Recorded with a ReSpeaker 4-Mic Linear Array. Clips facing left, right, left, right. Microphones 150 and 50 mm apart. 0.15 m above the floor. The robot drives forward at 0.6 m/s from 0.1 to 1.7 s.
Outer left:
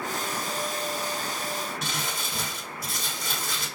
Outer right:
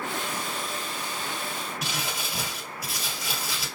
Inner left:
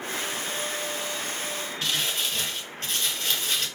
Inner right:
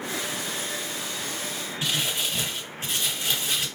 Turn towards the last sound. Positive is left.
turn(degrees=-10)  # may be behind; listen again after turning